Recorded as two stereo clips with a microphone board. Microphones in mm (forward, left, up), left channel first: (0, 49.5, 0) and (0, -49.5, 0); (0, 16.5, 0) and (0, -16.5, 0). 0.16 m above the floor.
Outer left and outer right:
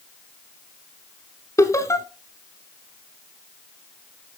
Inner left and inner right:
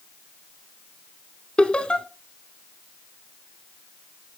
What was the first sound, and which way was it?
Laughter, 30° left (ahead or behind).